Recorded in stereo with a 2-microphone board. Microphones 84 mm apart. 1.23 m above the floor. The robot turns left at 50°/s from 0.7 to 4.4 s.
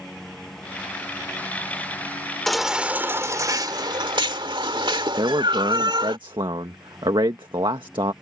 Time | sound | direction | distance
0.0 | a lawn mower | 5° left (ahead or behind) | ?
2.5 | a baby crying | 5° left | ?
5.2 | a man speaking | 70° right (ahead or behind) | ?